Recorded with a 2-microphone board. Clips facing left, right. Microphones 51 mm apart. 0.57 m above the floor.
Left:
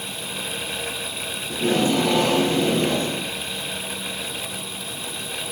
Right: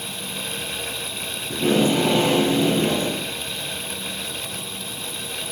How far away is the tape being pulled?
About 3 m.